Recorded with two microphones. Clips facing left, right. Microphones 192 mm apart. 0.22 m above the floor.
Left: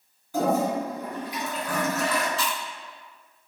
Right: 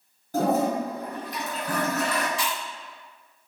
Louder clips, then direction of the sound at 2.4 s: Even; 15° right (ahead or behind).